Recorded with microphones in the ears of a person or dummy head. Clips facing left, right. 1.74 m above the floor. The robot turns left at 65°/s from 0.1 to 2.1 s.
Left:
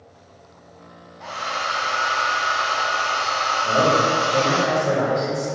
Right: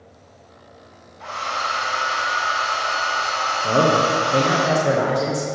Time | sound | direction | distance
1.2 | a hair dryer | straight behind | 0.8 m
3.6 | a man speaking | 40° right (ahead or behind) | 1.1 m